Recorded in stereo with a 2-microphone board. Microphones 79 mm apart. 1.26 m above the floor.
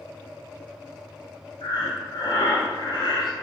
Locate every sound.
1.6 s breathing: 65° left (ahead or behind), 0.7 m